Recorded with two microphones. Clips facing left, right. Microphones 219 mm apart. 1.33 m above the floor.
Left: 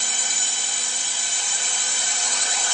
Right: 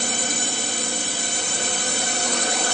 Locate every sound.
0.0 s a drone: 55° right (ahead or behind)